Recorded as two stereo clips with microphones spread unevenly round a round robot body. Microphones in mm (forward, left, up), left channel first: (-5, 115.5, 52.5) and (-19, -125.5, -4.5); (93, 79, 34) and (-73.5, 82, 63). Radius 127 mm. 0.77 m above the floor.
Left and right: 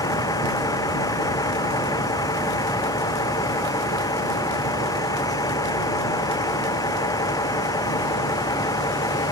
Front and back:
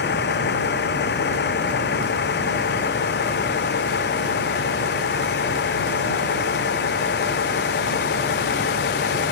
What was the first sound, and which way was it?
A vehicle, 10° left.